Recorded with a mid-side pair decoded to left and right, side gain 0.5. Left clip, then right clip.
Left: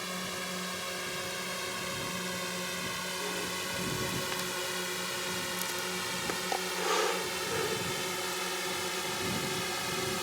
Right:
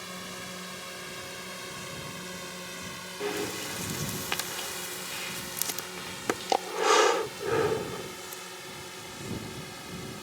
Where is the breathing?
50° right.